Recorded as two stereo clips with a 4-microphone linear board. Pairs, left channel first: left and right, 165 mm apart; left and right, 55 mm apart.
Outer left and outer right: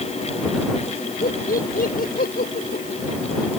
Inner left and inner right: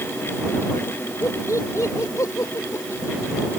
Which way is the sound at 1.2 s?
65° left (ahead or behind).